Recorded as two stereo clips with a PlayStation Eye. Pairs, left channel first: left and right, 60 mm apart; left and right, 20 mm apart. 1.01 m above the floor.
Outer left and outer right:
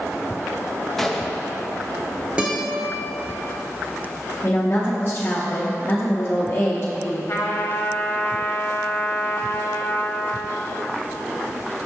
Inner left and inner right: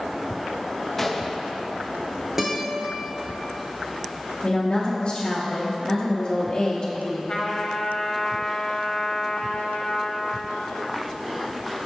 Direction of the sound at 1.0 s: 5° left (ahead or behind).